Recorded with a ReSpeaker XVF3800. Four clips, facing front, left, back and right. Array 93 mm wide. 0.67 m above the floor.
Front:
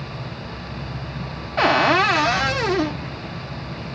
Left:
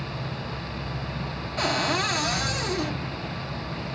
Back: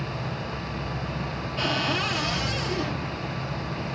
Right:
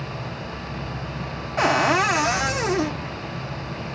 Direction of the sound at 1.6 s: 25° right.